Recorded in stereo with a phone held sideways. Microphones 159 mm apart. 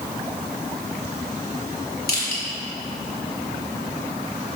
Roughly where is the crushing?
Left.